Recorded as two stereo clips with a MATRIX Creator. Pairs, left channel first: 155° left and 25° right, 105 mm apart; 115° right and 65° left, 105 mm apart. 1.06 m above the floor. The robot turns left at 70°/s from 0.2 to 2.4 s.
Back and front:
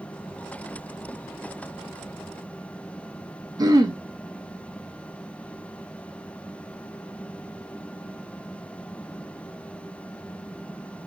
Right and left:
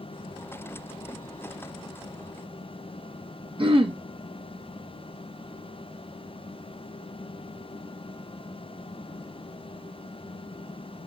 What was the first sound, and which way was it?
Throat clearing, 30° left.